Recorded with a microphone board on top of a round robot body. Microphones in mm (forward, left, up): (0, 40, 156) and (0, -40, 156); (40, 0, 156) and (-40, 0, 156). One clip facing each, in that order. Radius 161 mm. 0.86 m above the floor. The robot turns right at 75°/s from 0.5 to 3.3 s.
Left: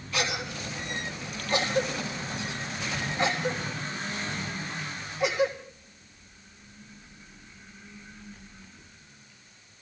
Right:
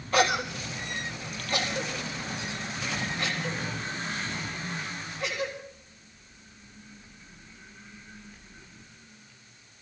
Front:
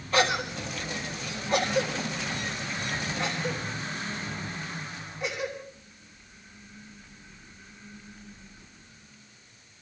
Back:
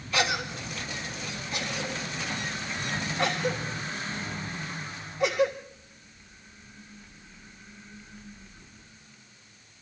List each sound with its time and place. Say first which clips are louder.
0.1 s a cough: right 7 dB, front 3 dB; 45° right, 3.5 m; by 5.5 s 165° left, 3.5 m